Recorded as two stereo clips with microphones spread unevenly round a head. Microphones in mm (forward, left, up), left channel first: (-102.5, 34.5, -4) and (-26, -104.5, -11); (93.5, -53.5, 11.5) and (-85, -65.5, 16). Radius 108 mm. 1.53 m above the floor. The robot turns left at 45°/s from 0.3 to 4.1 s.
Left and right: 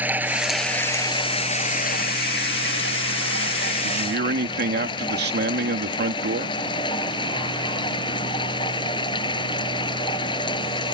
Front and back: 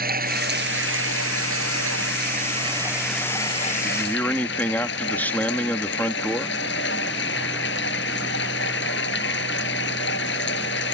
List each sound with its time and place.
0.0 s running water: 140° right; by 11.0 s 50° left
3.8 s a man speaking: 65° right; by 6.6 s 75° right